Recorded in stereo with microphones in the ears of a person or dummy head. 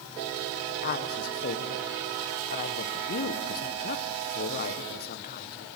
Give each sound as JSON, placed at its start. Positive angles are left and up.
{"t": 0.8, "sound": "a woman speaking", "side_deg": 45, "distance_m": 1.2}